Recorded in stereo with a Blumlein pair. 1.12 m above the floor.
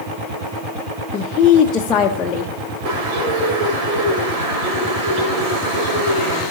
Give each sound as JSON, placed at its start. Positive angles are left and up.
{"t": 1.1, "sound": "a woman speaking", "azimuth_deg": 25, "distance_m": 0.7}
{"t": 2.9, "sound": "a bird", "azimuth_deg": -45, "distance_m": 3.5}